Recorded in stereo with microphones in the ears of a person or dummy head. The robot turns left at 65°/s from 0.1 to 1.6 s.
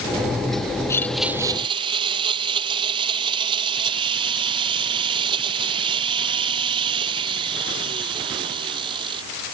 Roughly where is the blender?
Ahead.